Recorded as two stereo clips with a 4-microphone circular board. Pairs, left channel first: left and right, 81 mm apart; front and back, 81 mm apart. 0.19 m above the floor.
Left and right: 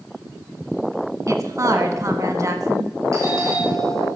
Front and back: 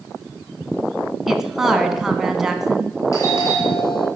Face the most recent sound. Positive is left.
turn(degrees=-45)